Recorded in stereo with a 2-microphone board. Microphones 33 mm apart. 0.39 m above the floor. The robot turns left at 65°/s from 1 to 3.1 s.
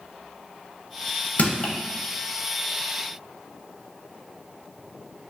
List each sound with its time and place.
1.4 s crushing: 65° left (ahead or behind), 0.8 m; by 1.7 s 45° left (ahead or behind), 0.8 m